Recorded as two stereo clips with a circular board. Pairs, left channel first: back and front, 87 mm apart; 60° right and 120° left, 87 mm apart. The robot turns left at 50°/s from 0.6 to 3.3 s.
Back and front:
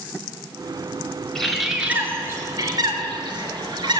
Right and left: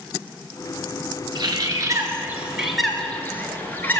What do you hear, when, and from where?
1.4 s a bird: 100° left, 1.8 m; by 4.0 s 5° left, 1.8 m